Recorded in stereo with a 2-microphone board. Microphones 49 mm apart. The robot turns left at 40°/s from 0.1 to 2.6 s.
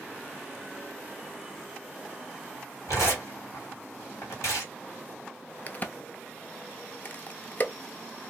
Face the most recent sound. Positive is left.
turn(degrees=35)  # may be behind; listen again after turning